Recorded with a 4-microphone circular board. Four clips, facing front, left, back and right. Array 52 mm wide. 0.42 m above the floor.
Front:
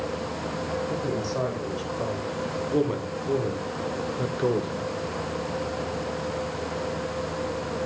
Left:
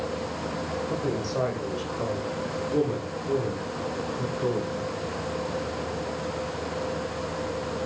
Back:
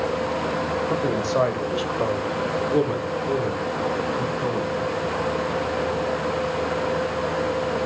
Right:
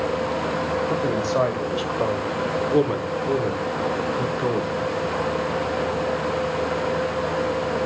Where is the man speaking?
145° right, 1.9 m; by 4.8 s 35° right, 1.4 m.